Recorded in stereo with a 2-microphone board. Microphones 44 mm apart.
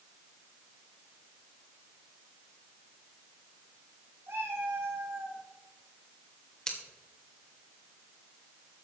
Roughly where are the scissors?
Centre.